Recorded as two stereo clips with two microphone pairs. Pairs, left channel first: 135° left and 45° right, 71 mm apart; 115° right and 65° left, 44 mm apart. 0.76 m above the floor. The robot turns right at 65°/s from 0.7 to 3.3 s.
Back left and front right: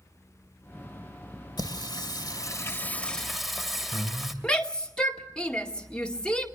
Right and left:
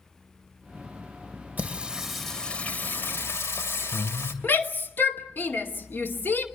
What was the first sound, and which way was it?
Singing, 115° left.